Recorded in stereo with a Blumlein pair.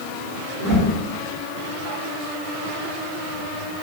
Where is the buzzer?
I don't hear a buzzer.